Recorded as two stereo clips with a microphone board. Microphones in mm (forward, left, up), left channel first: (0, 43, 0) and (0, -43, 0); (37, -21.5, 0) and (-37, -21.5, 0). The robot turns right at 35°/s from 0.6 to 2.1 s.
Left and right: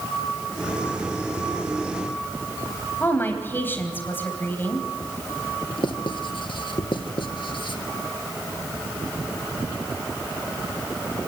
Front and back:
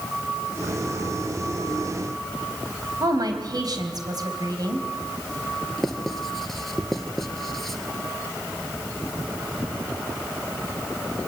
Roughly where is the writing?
Left.